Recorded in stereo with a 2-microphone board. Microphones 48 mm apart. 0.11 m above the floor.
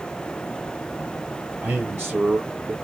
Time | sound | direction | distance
1.6 | a man speaking | 40° right (ahead or behind) | 2.0 m